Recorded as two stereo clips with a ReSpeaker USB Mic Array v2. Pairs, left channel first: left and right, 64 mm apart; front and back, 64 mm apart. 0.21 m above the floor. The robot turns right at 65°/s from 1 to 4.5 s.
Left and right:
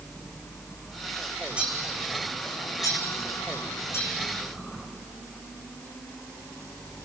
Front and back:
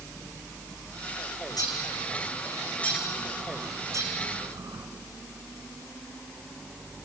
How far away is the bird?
About 3.5 m.